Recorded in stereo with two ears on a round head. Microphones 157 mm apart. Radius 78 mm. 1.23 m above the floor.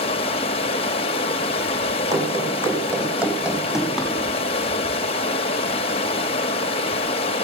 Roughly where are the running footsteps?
Centre.